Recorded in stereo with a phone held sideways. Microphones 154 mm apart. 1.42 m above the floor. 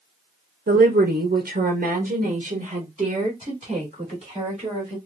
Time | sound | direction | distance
0.7 | a woman speaking | 80° right | 0.6 m